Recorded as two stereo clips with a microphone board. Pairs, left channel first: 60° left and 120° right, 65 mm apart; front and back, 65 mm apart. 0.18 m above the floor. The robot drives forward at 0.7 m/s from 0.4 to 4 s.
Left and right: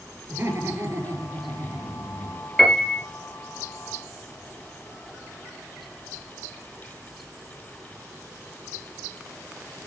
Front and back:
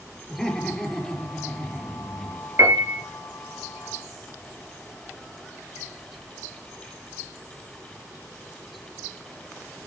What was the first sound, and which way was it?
Laughter, 80° right.